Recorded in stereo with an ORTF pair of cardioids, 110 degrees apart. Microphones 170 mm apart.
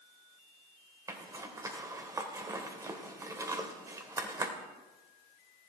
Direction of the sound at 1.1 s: 20° right.